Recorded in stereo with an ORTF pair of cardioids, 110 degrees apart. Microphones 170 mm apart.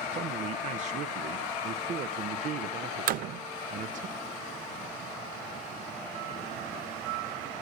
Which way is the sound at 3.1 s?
65° right.